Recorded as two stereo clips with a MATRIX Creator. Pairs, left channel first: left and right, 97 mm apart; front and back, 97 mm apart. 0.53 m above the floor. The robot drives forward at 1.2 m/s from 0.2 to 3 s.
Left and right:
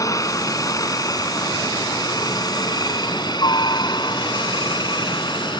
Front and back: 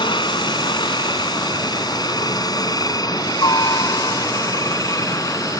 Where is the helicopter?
35° left; by 5.6 s 50° left.